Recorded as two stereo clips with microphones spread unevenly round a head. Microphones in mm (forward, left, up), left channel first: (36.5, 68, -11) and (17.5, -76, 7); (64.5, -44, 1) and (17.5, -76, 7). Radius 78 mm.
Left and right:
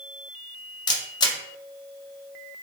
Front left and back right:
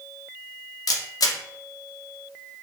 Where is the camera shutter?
15° left, 0.7 m.